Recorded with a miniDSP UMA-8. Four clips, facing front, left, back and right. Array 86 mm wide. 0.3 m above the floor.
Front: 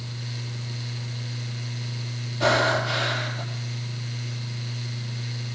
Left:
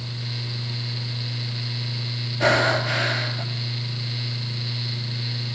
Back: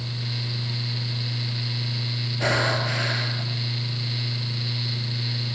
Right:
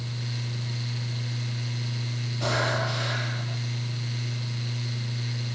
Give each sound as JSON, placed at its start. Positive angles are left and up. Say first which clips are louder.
{"t": 2.4, "sound": "breathing", "louder": "left 7 dB, front 3 dB", "azimuth_deg": 110, "distance_m": 3.5}